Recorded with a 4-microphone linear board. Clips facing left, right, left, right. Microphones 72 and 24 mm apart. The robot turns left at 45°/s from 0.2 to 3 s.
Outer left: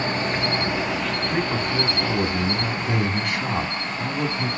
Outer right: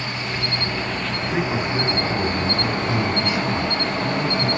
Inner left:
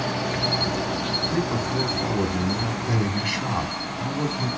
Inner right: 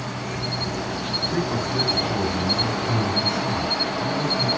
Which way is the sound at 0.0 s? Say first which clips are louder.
Outer left 4 dB, inner left 4 dB; 40° left.